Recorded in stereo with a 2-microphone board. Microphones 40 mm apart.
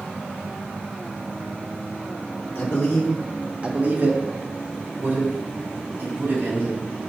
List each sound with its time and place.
2.5 s a man speaking: 55° left (ahead or behind), 1.5 m; by 6.8 s 75° right (ahead or behind), 5.5 m